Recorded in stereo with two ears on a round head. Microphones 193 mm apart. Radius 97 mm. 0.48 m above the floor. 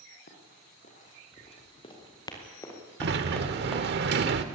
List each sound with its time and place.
0.3 s running footsteps: 40° left (ahead or behind), 5.5 m; by 3.9 s 5° right (ahead or behind), 4.5 m
3.0 s a sliding door: 50° right (ahead or behind), 1.1 m